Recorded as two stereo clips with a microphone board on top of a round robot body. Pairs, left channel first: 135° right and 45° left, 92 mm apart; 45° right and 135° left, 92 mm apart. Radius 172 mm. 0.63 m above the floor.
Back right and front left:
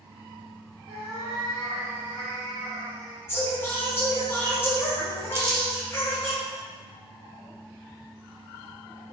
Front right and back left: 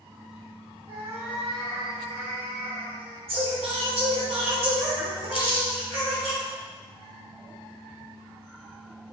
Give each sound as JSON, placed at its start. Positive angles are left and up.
{"t": 0.9, "sound": "a cat meowing", "azimuth_deg": 95, "distance_m": 0.7}
{"t": 3.3, "sound": "singing", "azimuth_deg": 160, "distance_m": 1.0}
{"t": 5.3, "sound": "crumpling", "azimuth_deg": -15, "distance_m": 0.8}